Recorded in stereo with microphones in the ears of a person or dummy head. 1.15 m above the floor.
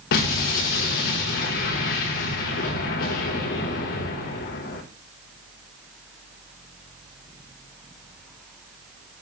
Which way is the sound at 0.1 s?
45° left (ahead or behind).